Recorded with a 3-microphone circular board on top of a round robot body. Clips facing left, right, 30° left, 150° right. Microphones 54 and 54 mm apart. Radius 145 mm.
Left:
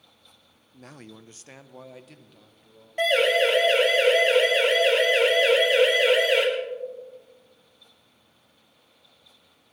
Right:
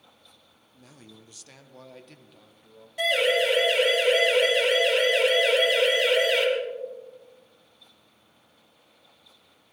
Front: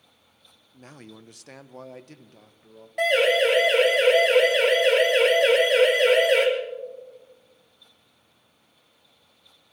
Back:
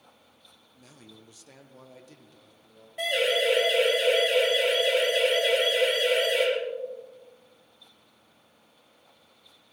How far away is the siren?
About 9.5 m.